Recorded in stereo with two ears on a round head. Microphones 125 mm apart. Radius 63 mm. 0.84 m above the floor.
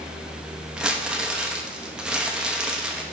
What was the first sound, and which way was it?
Crumpling, 5° right (ahead or behind).